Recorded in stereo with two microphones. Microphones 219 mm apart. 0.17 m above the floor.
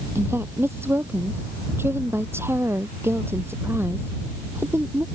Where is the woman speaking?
10° right (ahead or behind).